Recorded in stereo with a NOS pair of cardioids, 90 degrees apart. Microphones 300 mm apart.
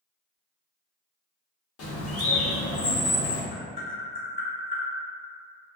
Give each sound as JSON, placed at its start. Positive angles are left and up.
{"t": 1.8, "sound": "a bird", "azimuth_deg": 55, "distance_m": 1.0}
{"t": 3.5, "sound": "tapping", "azimuth_deg": 65, "distance_m": 1.3}